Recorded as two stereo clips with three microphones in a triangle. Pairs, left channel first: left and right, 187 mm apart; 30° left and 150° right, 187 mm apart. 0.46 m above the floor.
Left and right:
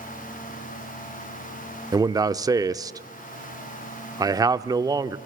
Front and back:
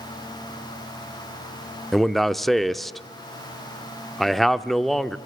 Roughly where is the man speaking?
Ahead right.